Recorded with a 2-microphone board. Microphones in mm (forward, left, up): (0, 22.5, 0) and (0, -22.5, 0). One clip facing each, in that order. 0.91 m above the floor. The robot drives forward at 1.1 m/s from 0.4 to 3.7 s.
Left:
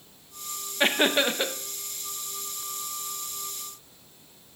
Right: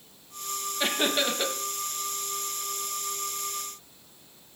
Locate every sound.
0.8 s laughter: 40° left (ahead or behind), 0.7 m; by 1.6 s 20° left (ahead or behind), 1.2 m